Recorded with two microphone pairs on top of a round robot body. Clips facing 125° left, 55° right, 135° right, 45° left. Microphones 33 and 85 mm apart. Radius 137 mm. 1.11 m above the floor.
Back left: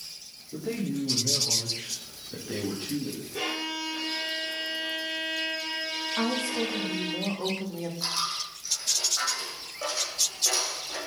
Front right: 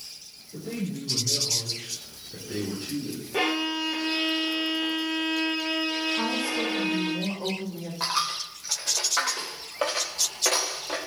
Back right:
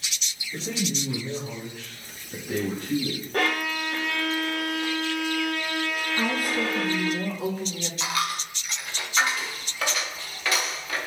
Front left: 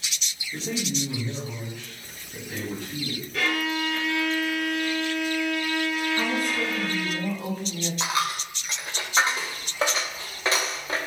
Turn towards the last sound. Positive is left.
turn(degrees=-20)